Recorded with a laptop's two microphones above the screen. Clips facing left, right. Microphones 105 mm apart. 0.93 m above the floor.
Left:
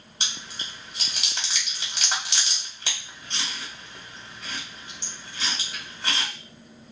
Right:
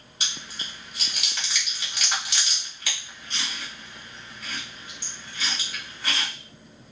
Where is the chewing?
30° left (ahead or behind), 1.1 m.